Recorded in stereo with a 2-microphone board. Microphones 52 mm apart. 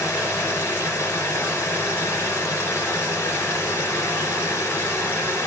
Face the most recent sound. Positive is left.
turn(degrees=65)  # may be behind; listen again after turning